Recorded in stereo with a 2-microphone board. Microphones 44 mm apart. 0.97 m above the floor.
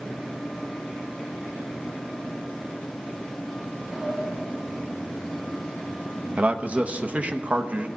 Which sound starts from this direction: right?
A man speaking, at 6.4 s.